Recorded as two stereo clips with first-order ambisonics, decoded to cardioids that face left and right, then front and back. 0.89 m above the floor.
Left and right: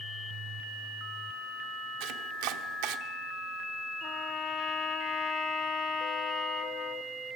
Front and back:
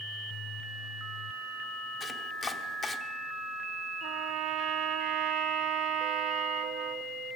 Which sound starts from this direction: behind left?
A trumpet, at 4.0 s.